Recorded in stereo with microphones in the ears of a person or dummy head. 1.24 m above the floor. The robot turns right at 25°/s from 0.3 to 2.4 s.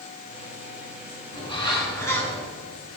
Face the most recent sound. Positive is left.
turn(degrees=10)  # may be behind; listen again after turning